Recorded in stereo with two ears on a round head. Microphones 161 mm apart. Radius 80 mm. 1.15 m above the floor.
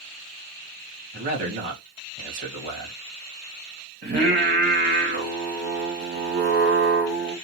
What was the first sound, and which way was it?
A man speaking, 45° right (ahead or behind).